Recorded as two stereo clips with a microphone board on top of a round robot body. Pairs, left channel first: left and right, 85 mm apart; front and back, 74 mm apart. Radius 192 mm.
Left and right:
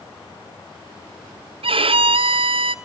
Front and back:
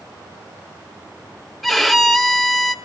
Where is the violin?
90° right, 1.2 m.